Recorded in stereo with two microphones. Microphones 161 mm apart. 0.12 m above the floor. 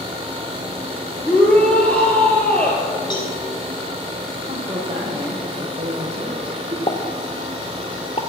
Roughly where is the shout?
Centre.